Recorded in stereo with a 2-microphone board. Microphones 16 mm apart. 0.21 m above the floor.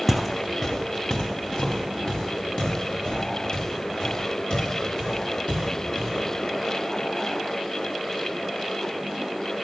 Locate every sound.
0.1 s footsteps: centre (ahead or behind), 0.5 m; by 6.1 s 55° left (ahead or behind), 8 m